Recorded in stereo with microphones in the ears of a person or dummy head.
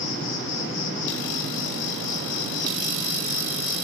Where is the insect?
60° left (ahead or behind), 1.2 m.